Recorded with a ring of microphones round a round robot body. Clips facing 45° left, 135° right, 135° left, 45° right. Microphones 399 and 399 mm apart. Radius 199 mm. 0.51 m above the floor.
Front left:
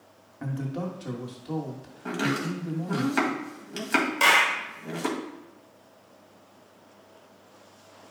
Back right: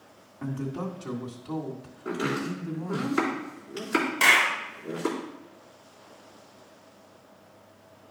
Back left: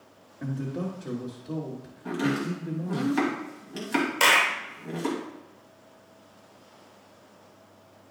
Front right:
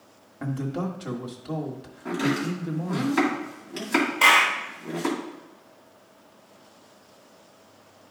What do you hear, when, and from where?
0.4 s a man speaking: 30° right, 1.4 m
2.0 s chopping: 50° left, 2.5 m
4.2 s a clap: 135° left, 1.3 m